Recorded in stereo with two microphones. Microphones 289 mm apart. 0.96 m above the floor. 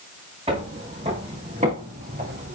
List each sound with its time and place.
0.5 s footsteps: 20° right (ahead or behind), 8 m; by 2.6 s 30° right (ahead or behind), 7.5 m